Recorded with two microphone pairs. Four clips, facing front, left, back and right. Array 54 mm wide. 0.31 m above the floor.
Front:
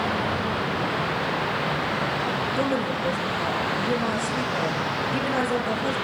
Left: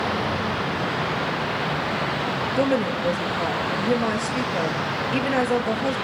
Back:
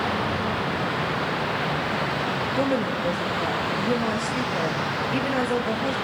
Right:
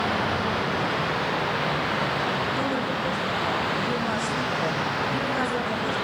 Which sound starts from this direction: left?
A woman speaking, at 2.6 s.